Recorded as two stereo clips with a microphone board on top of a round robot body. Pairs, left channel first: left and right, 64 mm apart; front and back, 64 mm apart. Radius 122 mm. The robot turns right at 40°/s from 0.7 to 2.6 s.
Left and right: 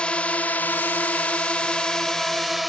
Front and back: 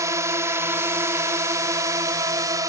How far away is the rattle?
I don't hear a rattle.